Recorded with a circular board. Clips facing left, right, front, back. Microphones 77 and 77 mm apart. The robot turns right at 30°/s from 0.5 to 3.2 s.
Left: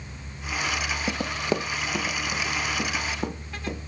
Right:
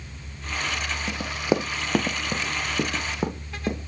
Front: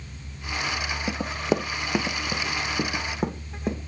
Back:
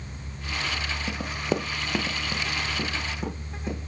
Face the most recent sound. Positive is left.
turn(degrees=-45)